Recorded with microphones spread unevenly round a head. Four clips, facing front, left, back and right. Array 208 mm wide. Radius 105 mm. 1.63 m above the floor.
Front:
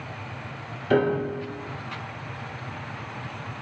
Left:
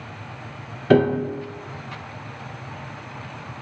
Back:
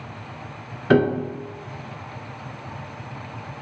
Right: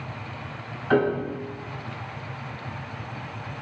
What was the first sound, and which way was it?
A piano, 125° left.